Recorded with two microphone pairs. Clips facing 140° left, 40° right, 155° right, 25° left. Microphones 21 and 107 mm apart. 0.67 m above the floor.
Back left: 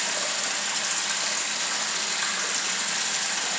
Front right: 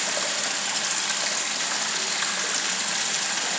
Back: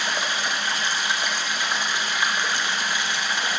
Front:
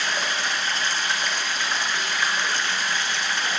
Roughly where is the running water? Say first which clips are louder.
Front right 1 dB, even; right.